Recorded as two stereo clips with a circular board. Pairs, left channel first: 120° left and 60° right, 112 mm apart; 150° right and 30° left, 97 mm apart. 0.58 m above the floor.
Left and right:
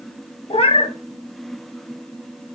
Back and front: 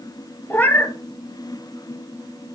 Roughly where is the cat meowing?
Behind left.